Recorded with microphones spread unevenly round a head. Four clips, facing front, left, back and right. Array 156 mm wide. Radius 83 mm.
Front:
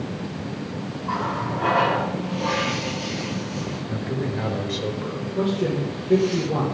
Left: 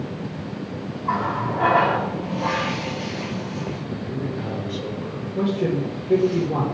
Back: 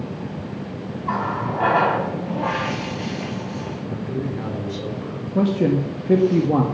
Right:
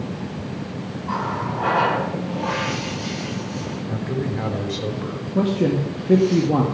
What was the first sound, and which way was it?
A running tap, 155° left.